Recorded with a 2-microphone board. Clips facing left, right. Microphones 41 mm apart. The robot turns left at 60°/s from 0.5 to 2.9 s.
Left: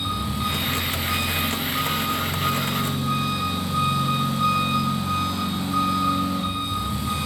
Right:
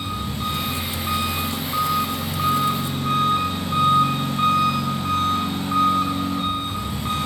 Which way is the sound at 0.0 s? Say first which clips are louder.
Left 1 dB; 5° left.